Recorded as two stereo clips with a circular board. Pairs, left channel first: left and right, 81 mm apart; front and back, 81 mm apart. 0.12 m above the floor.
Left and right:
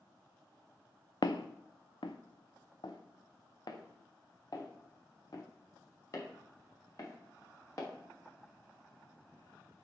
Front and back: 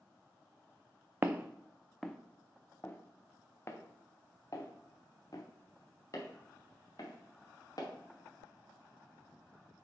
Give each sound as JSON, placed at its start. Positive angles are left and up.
{"t": 1.2, "sound": "footsteps", "azimuth_deg": 115, "distance_m": 0.6}